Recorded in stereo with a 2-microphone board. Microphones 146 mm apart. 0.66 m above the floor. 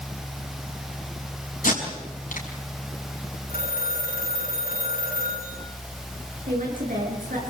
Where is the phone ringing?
85° left, 5.5 m.